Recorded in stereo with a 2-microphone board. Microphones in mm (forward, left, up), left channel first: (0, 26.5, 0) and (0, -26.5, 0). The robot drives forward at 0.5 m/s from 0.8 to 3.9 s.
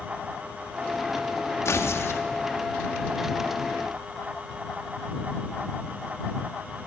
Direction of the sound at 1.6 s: 60° left (ahead or behind).